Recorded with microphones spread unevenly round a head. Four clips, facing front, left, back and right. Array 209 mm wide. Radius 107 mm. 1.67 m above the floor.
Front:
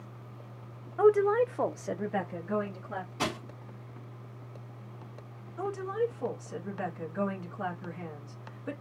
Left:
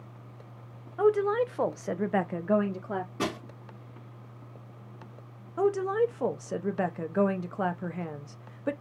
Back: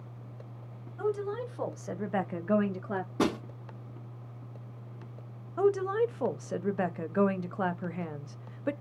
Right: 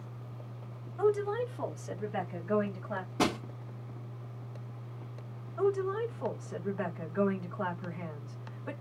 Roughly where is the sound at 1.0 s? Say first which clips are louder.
Left 5 dB, front 9 dB; ahead left.